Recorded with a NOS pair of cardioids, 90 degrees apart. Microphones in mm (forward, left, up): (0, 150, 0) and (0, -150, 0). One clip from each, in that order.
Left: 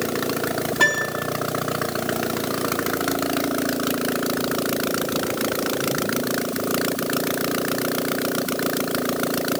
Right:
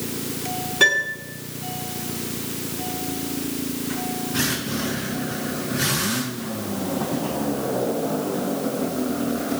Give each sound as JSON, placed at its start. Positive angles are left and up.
{"t": 0.8, "sound": "a piano", "azimuth_deg": 60, "distance_m": 5.0}